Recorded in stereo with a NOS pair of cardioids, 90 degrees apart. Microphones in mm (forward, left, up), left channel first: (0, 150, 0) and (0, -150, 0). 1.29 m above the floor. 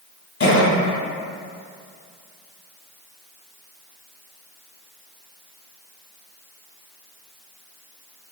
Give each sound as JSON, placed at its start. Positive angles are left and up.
{"t": 0.4, "sound": "a cough", "azimuth_deg": 45, "distance_m": 1.9}